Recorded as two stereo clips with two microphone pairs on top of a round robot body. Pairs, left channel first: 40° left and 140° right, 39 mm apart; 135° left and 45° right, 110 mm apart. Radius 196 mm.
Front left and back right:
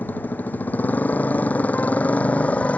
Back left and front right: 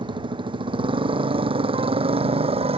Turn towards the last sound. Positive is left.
turn(degrees=-15)